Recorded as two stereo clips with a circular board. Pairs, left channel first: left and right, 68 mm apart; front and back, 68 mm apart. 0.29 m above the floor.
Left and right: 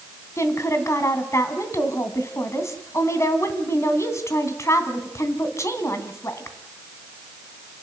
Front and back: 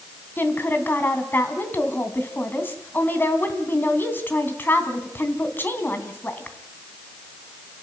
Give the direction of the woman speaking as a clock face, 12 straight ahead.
10 o'clock.